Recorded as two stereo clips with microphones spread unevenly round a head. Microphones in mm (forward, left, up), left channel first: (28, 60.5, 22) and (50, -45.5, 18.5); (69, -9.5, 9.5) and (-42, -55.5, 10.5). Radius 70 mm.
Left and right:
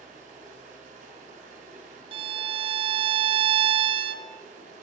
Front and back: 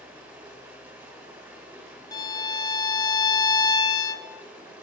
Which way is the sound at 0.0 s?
80° right.